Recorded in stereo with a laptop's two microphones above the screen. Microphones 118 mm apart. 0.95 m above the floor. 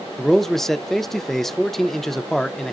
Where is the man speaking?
5° left (ahead or behind), 0.5 m.